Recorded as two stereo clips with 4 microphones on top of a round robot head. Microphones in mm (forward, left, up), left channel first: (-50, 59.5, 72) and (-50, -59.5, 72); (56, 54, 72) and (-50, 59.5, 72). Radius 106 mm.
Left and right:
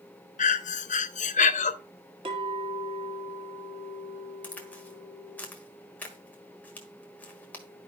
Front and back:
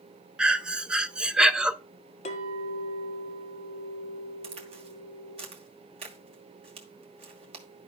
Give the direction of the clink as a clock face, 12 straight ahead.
1 o'clock.